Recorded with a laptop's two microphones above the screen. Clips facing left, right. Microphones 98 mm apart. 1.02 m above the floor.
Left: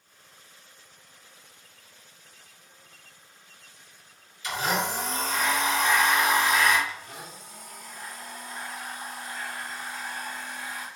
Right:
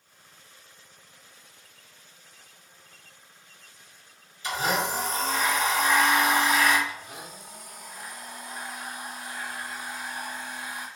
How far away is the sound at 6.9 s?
About 0.6 m.